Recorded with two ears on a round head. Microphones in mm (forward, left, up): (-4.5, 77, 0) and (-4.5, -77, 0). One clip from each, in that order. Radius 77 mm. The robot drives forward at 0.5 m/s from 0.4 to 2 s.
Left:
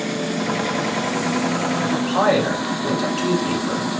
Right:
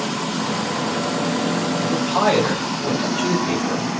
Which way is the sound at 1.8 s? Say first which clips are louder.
Even; 15° left (ahead or behind).